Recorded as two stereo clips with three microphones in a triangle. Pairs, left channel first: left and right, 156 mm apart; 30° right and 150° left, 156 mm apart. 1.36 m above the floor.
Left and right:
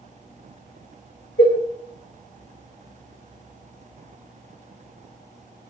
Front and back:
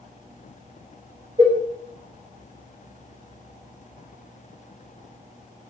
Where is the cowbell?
90° left, 2 m.